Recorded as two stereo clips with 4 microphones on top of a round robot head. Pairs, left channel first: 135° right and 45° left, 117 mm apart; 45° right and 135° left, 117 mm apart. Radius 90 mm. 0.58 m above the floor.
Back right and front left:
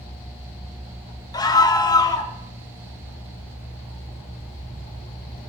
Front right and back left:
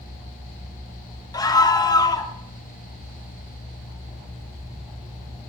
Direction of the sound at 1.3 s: 90° right.